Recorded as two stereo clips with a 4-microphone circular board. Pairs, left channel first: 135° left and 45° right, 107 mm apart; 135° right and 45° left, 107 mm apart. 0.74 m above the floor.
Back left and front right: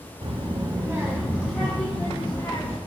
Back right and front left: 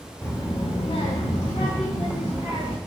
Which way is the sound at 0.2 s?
60° right.